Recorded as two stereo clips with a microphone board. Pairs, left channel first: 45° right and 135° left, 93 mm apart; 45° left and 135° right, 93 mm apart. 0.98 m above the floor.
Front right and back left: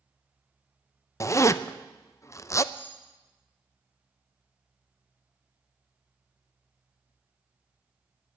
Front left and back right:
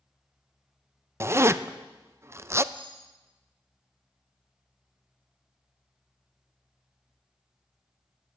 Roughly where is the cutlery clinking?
Behind right.